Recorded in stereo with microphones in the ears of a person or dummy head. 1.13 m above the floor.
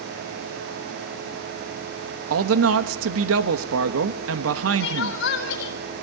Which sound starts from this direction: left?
Crying, at 4.8 s.